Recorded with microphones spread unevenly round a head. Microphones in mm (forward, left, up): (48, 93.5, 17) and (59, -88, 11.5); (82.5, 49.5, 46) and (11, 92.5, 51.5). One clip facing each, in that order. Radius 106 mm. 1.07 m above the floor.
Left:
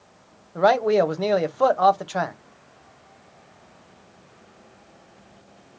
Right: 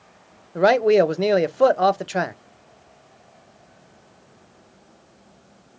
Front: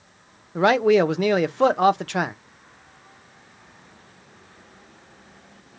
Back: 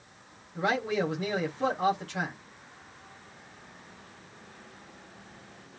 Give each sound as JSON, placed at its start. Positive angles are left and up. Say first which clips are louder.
{"t": 0.6, "sound": "a man speaking", "louder": "right 3 dB, front 12 dB", "azimuth_deg": -20, "distance_m": 0.9}